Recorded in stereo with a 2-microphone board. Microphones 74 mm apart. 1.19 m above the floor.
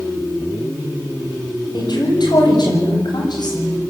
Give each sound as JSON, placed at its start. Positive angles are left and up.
{"t": 1.7, "sound": "a woman speaking", "side_deg": 75, "distance_m": 7.0}